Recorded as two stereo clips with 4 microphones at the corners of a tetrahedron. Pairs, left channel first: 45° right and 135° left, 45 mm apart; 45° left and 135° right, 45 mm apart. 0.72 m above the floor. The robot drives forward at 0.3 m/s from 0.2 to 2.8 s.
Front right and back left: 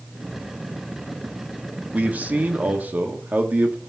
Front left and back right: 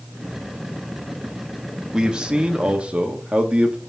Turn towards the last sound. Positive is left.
turn(degrees=165)